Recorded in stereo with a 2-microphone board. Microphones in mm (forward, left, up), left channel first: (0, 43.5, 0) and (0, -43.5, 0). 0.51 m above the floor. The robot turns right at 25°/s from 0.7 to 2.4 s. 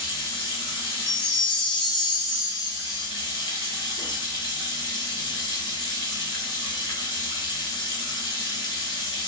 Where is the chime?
90° left, 0.7 m; by 3.1 s 125° left, 0.7 m.